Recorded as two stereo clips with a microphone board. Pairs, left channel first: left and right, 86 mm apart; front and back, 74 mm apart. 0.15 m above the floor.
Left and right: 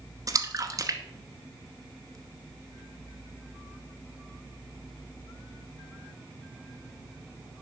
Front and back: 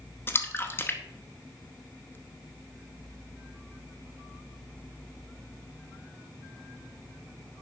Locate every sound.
0.3 s a splash: 55° right, 0.9 m